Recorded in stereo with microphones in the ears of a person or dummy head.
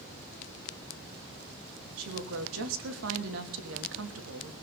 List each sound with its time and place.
2.0 s a woman speaking: 70° right (ahead or behind), 3 m